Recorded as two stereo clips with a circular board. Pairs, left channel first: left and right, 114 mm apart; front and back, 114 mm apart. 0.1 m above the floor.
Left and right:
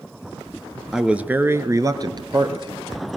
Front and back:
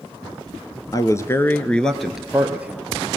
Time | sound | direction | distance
0.9 | a man speaking | 5° right | 1.6 m